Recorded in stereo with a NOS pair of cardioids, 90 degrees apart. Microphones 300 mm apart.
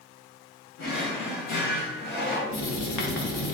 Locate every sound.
0.8 s a drawer: 70° left, 1.4 m
2.5 s writing: 70° left, 1.0 m